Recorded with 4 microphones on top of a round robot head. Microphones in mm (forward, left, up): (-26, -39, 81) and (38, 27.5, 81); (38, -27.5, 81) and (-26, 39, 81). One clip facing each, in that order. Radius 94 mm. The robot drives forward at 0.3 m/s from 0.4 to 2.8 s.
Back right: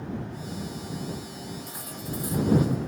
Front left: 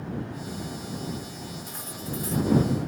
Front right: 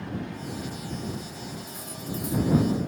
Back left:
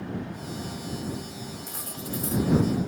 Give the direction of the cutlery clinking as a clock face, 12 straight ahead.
7 o'clock.